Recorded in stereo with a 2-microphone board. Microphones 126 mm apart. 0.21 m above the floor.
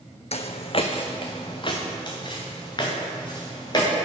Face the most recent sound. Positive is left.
turn(degrees=35)  # may be behind; listen again after turning